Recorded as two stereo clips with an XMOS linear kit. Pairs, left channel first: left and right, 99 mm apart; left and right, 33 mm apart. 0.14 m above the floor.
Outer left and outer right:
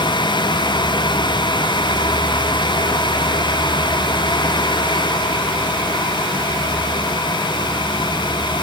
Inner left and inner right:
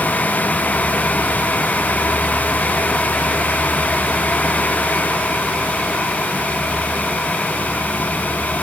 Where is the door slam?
I don't hear a door slam.